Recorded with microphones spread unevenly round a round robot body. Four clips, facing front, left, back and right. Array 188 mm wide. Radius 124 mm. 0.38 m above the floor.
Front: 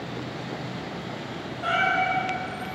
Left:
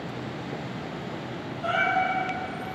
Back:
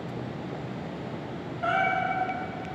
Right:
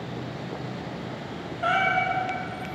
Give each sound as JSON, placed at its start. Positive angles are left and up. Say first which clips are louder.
{"t": 1.6, "sound": "a cat meowing", "louder": "right 1 dB, front 2 dB", "azimuth_deg": -100, "distance_m": 0.7}